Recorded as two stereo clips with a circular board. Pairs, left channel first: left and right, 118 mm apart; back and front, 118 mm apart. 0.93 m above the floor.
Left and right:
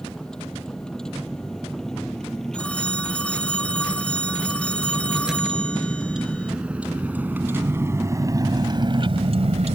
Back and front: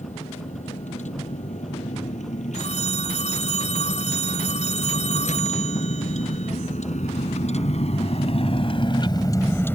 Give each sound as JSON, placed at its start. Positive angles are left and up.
{"t": 0.0, "sound": "a vehicle", "azimuth_deg": 175}
{"t": 2.5, "sound": "a phone ringing", "azimuth_deg": 170}